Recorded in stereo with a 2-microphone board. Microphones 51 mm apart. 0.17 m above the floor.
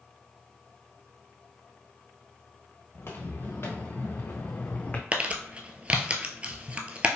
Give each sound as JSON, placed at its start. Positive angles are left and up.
{"t": 2.9, "sound": "footsteps", "side_deg": 55, "distance_m": 1.8}
{"t": 5.1, "sound": "crumpling", "side_deg": -25, "distance_m": 0.7}